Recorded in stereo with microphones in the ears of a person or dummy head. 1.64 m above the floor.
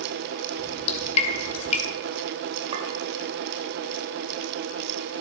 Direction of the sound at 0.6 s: 45° left (ahead or behind).